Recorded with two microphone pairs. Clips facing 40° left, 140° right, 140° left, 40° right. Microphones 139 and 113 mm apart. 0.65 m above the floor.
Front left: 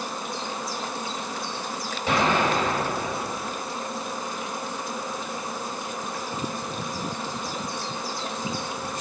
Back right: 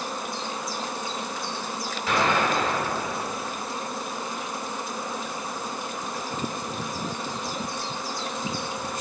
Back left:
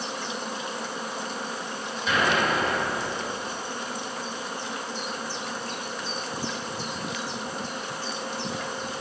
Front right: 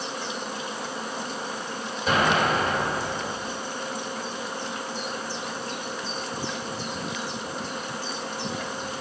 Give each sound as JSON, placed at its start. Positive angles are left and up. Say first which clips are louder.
{"t": 2.1, "sound": "an explosion", "louder": "front left 1 dB, front right 2 dB", "azimuth_deg": -20, "distance_m": 2.5}